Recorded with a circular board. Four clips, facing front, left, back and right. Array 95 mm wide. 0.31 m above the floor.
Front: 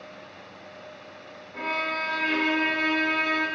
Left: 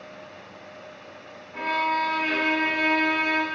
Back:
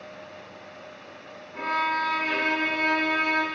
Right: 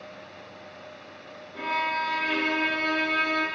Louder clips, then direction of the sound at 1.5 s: Left 3 dB, back 4 dB; 90° left.